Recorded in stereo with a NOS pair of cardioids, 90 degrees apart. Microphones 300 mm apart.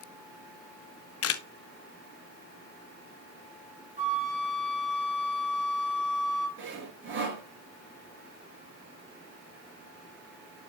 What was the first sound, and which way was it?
A camera shutter, 55° left.